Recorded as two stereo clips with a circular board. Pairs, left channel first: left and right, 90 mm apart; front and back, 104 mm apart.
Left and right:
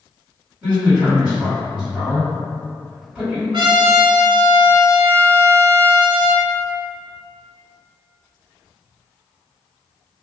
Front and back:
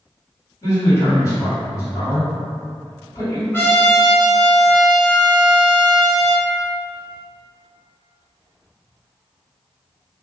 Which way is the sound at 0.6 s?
25° right.